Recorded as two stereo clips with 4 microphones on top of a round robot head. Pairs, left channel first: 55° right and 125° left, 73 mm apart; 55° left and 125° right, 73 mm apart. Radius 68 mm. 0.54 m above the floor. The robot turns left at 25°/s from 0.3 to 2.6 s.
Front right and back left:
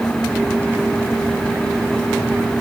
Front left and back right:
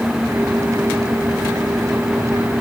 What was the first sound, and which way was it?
Only background noise.